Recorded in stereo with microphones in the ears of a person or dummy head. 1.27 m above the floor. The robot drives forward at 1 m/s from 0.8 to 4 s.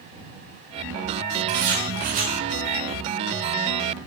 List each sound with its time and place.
1.5 s writing: 50° right (ahead or behind), 1.3 m; by 2.4 s 40° right (ahead or behind), 1.6 m